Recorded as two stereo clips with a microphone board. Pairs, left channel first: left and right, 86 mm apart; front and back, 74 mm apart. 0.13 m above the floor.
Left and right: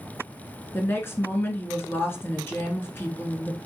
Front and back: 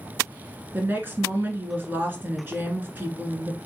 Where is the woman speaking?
135° left, 1.4 m.